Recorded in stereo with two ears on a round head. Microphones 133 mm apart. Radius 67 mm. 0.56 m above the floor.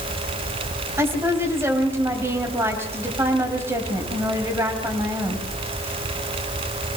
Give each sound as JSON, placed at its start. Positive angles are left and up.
{"t": 1.0, "sound": "a woman speaking", "side_deg": -15, "distance_m": 3.5}